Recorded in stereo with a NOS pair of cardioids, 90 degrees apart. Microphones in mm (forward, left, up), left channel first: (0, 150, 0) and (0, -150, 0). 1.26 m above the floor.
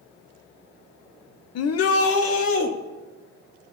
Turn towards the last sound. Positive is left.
turn(degrees=45)